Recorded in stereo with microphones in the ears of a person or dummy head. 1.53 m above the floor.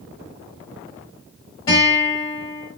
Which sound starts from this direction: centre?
A guitar, at 1.7 s.